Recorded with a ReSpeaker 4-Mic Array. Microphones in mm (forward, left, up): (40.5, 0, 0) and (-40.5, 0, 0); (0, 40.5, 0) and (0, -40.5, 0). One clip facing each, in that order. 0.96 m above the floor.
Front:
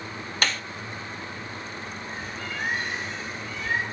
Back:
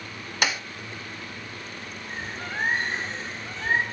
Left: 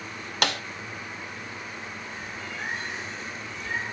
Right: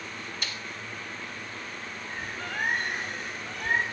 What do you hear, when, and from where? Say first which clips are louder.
0.4 s a snare drum: back 1 dB, left 16 dB; 100° left, 1.2 m
2.1 s a bird: back 4 dB, right 2 dB; 125° right, 5.5 m